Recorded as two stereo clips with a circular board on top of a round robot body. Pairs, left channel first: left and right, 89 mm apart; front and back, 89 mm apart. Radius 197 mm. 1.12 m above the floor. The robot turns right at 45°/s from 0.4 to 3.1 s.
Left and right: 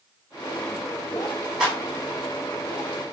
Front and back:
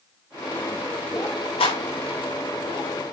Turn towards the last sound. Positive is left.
turn(degrees=55)